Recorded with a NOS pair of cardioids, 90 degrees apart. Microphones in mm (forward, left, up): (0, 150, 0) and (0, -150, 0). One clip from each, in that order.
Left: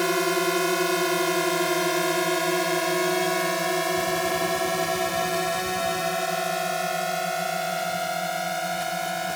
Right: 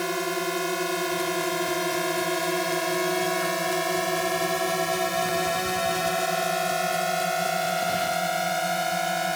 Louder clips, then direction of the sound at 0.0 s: Left 4 dB; 40° left.